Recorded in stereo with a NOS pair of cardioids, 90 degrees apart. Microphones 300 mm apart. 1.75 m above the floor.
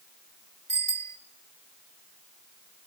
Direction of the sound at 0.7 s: 25° right.